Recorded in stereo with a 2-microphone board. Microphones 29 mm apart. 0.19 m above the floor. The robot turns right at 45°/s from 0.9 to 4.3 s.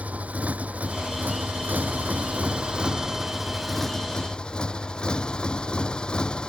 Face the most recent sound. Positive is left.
turn(degrees=35)